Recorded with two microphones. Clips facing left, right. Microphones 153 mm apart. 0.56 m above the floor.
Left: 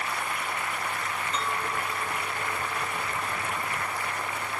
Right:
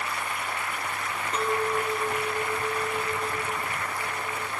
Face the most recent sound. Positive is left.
turn(degrees=-55)  # may be behind; listen again after turning